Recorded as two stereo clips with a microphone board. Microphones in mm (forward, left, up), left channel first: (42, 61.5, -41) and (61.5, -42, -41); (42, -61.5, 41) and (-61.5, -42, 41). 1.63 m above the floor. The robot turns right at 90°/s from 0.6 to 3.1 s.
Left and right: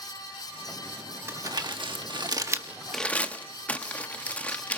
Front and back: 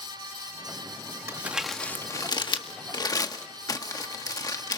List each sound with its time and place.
1.3 s crumpling: 135° right, 1.4 m; by 4.8 s 25° left, 1.4 m